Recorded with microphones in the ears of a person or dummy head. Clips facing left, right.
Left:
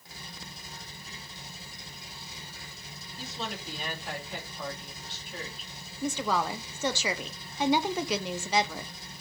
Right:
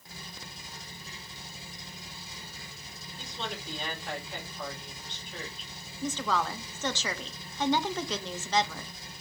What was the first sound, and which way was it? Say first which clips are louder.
A woman speaking: left 1 dB; 5° left (ahead or behind).